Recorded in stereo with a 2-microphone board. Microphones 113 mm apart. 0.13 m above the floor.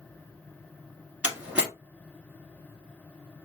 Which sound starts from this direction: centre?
A door slam, at 1.2 s.